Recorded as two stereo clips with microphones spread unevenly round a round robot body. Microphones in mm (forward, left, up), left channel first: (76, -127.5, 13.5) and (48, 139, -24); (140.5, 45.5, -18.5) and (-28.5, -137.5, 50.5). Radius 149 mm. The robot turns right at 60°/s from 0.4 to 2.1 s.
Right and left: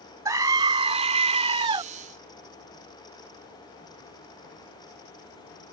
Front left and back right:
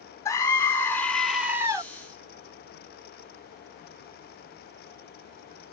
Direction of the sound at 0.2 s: 50° left.